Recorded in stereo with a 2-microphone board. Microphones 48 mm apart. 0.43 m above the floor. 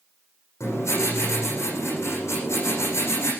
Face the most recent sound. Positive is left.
turn(degrees=90)